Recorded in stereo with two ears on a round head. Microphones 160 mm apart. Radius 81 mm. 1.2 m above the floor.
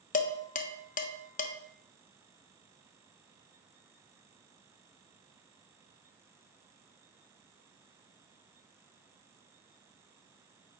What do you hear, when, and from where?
0.1 s dishes clattering: 50° left (ahead or behind), 0.5 m